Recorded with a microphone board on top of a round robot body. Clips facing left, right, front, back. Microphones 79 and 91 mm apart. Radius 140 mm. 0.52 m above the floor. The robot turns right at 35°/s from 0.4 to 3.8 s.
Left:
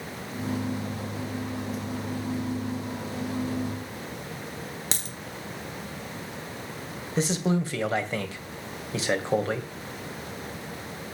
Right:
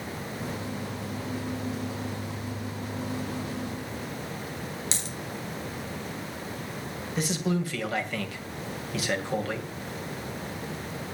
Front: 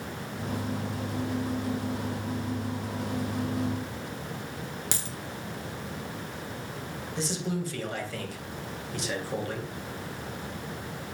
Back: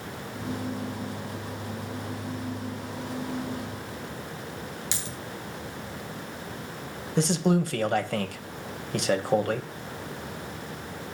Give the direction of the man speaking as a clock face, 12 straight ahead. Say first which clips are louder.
Left 3 dB, back 9 dB; 7 o'clock.